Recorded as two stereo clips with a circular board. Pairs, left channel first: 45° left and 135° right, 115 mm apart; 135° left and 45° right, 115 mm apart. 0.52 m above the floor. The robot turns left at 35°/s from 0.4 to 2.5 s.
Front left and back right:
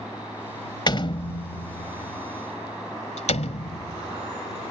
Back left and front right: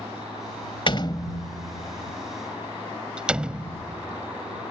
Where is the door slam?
95° left; by 4.7 s 35° left.